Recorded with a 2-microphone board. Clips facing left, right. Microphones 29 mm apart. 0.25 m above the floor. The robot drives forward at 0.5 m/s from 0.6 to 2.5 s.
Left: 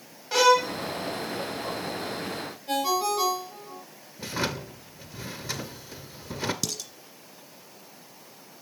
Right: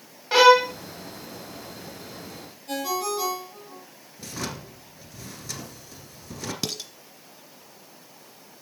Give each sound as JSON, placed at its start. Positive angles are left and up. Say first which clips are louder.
{"t": 0.3, "sound": "a violin", "louder": "right 5 dB", "side_deg": -25, "distance_m": 0.6}
{"t": 2.7, "sound": "a ringtone", "louder": "left 2 dB", "side_deg": 20, "distance_m": 6.0}
{"t": 4.2, "sound": "a drawer", "louder": "left 4 dB", "side_deg": 25, "distance_m": 1.3}
{"t": 6.6, "sound": "dishes clattering", "louder": "right 2 dB", "side_deg": -30, "distance_m": 1.5}